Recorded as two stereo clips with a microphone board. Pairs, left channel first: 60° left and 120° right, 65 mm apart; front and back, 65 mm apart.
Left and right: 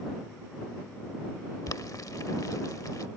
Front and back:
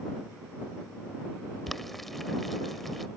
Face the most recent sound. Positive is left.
turn(degrees=90)